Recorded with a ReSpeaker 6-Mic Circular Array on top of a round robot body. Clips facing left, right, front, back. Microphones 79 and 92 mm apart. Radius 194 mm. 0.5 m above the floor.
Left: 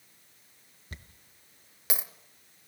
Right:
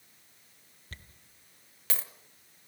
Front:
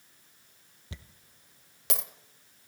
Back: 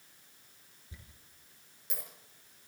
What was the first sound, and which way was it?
A dropped coin, 15° left.